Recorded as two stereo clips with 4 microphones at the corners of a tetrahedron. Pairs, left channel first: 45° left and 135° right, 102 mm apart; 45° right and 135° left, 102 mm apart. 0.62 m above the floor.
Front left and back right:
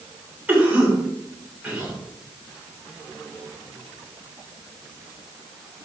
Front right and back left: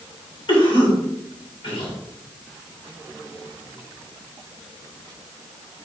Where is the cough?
60° right, 2 m.